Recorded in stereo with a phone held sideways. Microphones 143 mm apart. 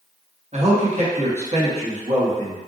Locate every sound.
0.5 s a man speaking: 50° right (ahead or behind), 1.2 m